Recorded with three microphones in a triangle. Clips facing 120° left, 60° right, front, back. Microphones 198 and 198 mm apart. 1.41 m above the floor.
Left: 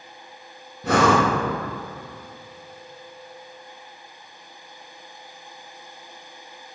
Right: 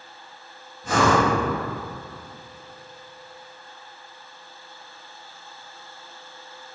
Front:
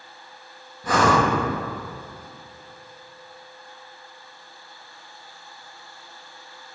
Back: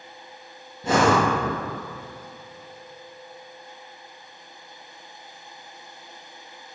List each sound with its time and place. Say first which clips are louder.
0.8 s breathing: left 2 dB, back 1 dB; 115° left, 1.2 m